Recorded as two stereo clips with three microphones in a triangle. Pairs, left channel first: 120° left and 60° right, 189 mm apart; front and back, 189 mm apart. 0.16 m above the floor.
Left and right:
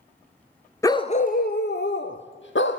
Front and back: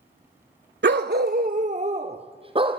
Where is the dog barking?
170° right, 0.7 m; by 2.8 s 120° left, 2 m.